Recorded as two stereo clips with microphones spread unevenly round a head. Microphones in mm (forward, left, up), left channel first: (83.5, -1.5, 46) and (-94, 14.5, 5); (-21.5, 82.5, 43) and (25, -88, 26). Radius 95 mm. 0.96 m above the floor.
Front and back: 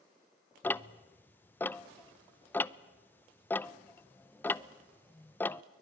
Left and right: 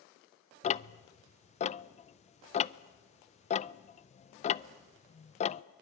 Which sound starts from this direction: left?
Ticking, at 0.6 s.